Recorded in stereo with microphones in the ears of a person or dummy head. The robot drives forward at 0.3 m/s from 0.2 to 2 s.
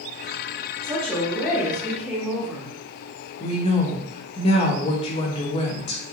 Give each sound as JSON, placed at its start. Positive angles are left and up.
{"t": 0.8, "sound": "a woman speaking", "side_deg": 0, "distance_m": 1.9}
{"t": 3.4, "sound": "a woman speaking", "side_deg": 35, "distance_m": 0.8}